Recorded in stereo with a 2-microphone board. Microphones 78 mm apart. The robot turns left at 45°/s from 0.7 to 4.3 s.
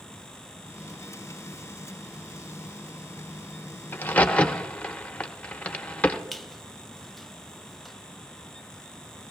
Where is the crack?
30° left (ahead or behind), 0.6 m; by 6.2 s 15° left (ahead or behind), 0.6 m.